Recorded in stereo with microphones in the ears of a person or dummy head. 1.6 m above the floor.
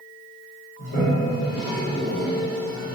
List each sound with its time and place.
0.8 s a toilet flushing: 65° left (ahead or behind), 1.9 m